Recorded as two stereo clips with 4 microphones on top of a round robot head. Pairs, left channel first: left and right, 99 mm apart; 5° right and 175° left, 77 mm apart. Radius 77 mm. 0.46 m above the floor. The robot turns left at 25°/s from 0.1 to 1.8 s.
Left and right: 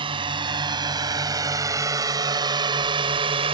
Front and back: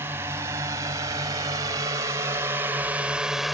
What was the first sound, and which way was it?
A drone, 120° right.